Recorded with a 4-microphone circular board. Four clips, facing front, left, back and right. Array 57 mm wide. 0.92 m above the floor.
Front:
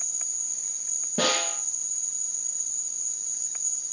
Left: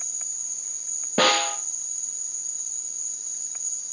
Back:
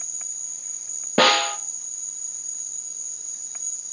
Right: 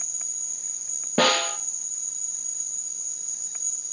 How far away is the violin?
I don't hear a violin.